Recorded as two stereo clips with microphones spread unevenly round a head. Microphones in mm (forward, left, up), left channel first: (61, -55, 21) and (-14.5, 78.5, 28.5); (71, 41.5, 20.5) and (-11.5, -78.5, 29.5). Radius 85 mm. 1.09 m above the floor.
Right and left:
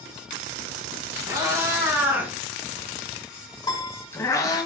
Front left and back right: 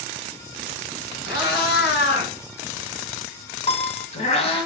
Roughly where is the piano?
Ahead.